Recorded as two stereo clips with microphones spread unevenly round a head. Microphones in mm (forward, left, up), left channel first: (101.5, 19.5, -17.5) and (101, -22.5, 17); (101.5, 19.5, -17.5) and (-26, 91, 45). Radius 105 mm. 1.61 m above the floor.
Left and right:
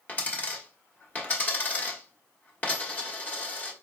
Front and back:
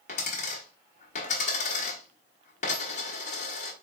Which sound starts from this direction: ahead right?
A dropped coin, at 0.1 s.